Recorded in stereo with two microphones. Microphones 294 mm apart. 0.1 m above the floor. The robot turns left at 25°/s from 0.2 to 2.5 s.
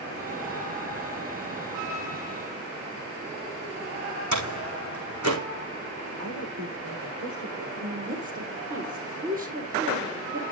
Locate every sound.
4.3 s a door slam: 75° right (ahead or behind), 4.5 m
6.2 s a woman speaking: 75° right (ahead or behind), 6 m
7.8 s a woman speaking: 30° right (ahead or behind), 4 m